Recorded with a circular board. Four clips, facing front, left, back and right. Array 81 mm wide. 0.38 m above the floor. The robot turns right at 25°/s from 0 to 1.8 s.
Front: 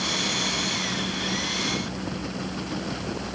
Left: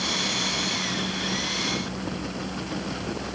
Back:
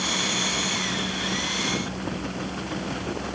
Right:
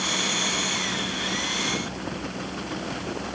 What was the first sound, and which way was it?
Only background noise.